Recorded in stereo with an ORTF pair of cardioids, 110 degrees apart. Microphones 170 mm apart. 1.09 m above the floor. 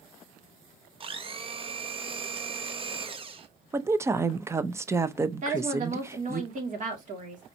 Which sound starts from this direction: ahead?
A woman speaking, at 3.7 s.